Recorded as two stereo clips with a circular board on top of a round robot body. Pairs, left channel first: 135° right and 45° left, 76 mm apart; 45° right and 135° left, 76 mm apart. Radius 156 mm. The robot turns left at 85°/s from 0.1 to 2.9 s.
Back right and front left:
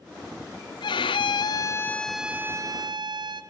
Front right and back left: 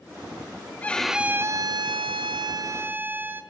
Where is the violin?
115° right, 0.8 m; by 3.4 s 70° left, 0.8 m.